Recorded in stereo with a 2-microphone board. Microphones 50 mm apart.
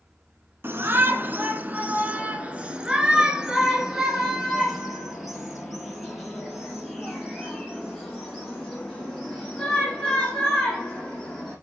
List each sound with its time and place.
0.6 s a shout: 50° right (ahead or behind), 1.6 m; by 11.5 s 10° left (ahead or behind), 7.5 m